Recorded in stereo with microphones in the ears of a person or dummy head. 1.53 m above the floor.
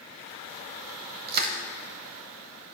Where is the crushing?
45° right (ahead or behind), 1.2 m.